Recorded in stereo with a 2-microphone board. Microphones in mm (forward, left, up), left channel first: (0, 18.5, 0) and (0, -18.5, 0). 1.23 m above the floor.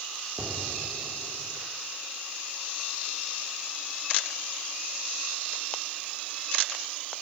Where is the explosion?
60° right (ahead or behind), 2 m.